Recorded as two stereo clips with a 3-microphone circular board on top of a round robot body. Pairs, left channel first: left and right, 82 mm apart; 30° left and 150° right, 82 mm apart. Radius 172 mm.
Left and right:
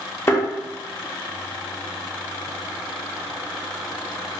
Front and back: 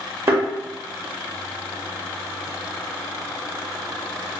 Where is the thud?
150° left, 0.7 m.